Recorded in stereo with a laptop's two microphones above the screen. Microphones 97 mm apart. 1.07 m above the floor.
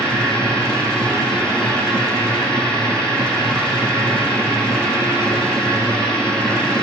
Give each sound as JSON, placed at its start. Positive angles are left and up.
{"t": 0.0, "sound": "a machine running", "side_deg": 10, "distance_m": 8.5}